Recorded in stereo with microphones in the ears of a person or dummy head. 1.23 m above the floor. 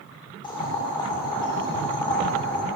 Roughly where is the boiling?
Left.